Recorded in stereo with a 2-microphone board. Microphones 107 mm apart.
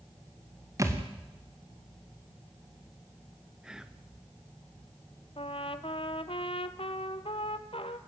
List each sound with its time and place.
0.8 s a thud: 30° right (ahead or behind), 3 m
3.6 s whispering: 5° right (ahead or behind), 1.2 m
5.4 s a trumpet: 65° left (ahead or behind), 1.0 m